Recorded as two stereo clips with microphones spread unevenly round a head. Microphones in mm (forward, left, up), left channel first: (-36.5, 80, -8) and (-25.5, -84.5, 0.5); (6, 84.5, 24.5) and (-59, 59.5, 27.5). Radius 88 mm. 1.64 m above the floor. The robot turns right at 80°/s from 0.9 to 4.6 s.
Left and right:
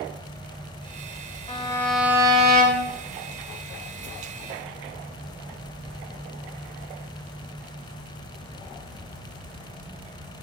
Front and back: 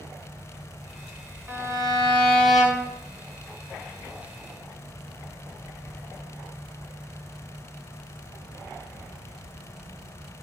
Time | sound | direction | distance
1.5 | a violin | 150° left | 3 m